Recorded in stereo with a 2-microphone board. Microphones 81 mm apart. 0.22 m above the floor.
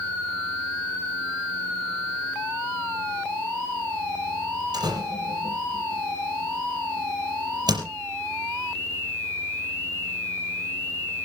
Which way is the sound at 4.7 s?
60° right (ahead or behind).